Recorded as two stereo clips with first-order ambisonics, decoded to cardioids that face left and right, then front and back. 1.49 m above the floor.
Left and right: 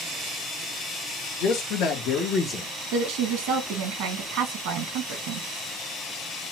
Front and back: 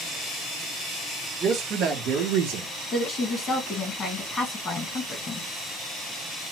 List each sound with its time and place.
1.4 s a man speaking: 120° left, 1.0 m; by 2.7 s 170° left, 0.8 m
2.9 s a woman speaking: 65° right, 1.3 m